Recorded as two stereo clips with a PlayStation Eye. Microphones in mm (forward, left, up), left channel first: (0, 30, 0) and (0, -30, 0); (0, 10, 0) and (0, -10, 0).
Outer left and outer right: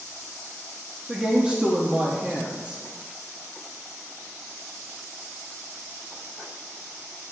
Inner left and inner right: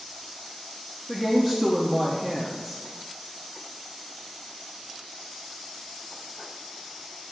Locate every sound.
1.1 s a woman speaking: 20° right (ahead or behind), 0.8 m